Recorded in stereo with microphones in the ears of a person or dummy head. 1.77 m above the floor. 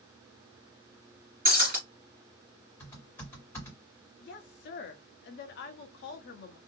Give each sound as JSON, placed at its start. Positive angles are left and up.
{"t": 1.4, "sound": "breaking glass", "side_deg": -35, "distance_m": 2.0}
{"t": 2.8, "sound": "typing on a keyboard", "side_deg": 15, "distance_m": 1.9}
{"t": 4.2, "sound": "a woman speaking", "side_deg": 45, "distance_m": 0.7}